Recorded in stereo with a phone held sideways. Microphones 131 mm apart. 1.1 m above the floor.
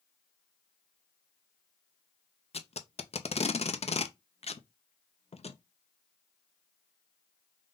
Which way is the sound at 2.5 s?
55° left (ahead or behind).